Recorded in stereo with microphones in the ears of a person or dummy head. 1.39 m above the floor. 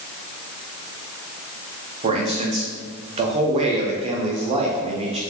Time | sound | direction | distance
2.0 | a man speaking | 30° right (ahead or behind) | 0.6 m